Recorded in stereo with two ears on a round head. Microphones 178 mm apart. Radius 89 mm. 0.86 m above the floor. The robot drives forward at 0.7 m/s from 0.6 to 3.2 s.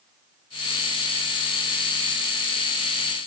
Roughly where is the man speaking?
I don't hear a man speaking.